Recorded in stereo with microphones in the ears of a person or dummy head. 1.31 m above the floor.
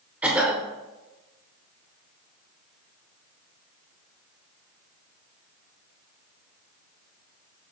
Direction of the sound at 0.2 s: 5° right (ahead or behind).